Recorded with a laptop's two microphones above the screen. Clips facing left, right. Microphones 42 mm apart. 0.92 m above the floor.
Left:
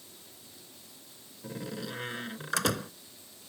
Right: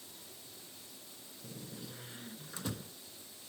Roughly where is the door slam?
Left.